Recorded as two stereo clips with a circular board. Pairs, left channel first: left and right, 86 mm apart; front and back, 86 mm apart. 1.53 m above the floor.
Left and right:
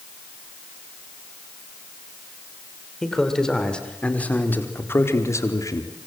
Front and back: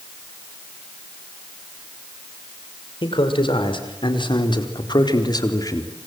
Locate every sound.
3.0 s a man speaking: 5° left, 5.5 m; by 6.1 s 50° left, 3.5 m